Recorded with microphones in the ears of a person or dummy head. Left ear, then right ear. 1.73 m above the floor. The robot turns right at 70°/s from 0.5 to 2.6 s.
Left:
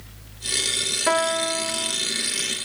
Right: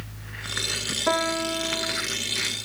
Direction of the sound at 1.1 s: 85° left.